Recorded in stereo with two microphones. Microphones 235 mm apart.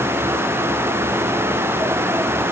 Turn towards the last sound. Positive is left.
No sound to turn to.